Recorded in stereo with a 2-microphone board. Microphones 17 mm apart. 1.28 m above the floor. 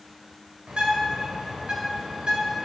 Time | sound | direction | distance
0.7 | a bird | 65° right (ahead or behind) | 2.5 m